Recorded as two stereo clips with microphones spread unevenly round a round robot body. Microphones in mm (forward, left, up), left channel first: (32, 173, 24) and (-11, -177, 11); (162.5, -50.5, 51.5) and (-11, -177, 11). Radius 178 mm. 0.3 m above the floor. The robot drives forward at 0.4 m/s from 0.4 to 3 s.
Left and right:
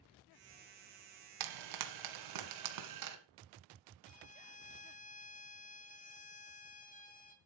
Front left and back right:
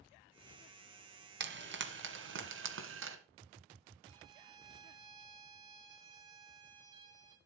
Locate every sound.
1.4 s frying: 115° right, 1.6 m; by 3.2 s 135° right, 1.9 m
4.0 s a violin: 150° left, 1.0 m